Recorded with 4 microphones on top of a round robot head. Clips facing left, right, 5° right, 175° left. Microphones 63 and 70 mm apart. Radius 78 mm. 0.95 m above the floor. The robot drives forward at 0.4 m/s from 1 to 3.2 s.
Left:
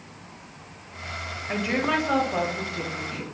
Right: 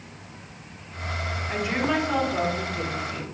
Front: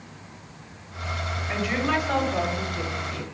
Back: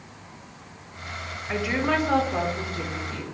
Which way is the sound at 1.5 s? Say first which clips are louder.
Left 1 dB, back 1 dB; 105° left.